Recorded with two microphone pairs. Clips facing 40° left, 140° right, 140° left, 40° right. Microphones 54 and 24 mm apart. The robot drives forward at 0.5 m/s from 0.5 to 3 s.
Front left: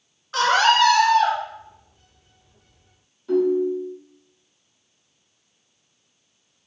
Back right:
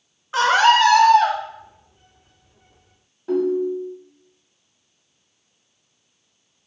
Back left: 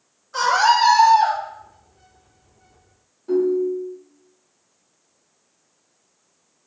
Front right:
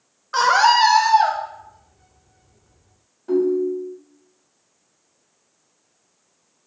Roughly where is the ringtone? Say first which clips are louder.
Front left 1 dB, even; behind right.